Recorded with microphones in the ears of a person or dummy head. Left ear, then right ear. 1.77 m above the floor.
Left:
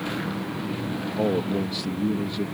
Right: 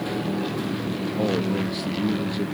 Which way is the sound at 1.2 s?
15° left (ahead or behind).